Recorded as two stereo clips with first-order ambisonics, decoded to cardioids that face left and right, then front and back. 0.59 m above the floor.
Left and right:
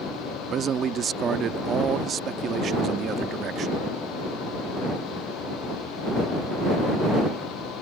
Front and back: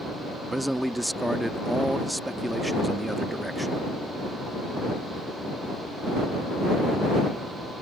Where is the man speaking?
95° right.